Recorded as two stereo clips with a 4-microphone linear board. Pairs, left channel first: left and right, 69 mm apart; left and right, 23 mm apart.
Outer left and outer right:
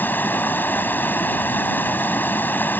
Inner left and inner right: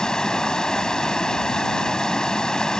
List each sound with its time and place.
0.0 s running water: 30° left (ahead or behind)